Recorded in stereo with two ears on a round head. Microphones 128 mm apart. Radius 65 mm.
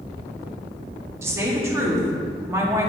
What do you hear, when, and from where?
1.2 s a woman speaking: 20° right (ahead or behind), 1.6 m